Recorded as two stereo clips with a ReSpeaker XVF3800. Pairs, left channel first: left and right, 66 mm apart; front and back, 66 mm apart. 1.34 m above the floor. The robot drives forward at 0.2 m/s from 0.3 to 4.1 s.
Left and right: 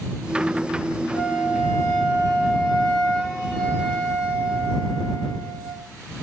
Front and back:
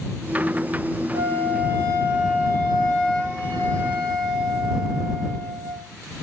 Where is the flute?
155° left, 0.7 m; by 5.9 s 165° left, 1.3 m.